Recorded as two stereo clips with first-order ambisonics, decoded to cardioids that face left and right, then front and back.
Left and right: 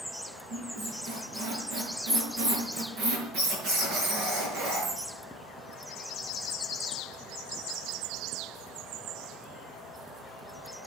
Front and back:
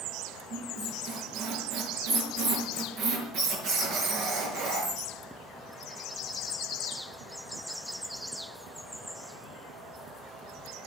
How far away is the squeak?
About 5 m.